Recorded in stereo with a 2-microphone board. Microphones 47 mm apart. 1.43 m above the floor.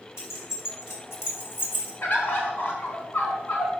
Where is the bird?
55° left (ahead or behind), 1.7 m.